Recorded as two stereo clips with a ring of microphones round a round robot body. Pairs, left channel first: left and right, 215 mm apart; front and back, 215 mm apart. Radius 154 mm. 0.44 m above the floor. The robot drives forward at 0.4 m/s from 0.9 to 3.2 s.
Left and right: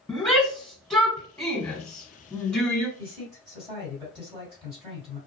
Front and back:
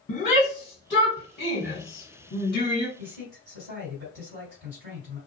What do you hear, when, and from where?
0.1 s a shout: 5° left, 1.5 m; by 2.9 s 15° left, 1.0 m
3.0 s a man speaking: 160° right, 2 m